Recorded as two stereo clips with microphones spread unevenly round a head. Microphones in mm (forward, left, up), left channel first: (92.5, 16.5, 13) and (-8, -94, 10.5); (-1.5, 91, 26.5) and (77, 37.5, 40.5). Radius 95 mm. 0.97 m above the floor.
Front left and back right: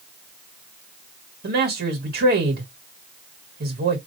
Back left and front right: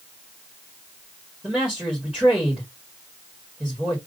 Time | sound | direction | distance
1.4 | a man speaking | 120° right | 1.4 m